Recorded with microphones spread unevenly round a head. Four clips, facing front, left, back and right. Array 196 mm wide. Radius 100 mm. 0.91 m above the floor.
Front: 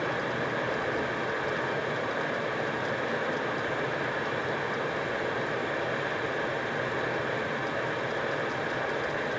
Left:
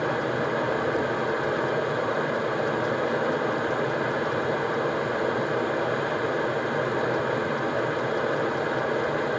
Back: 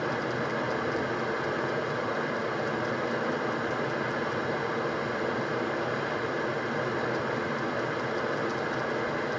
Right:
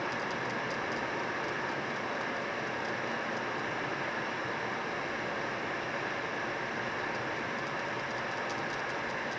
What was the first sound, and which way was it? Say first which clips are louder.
Running water: left 9 dB, even; 105° left.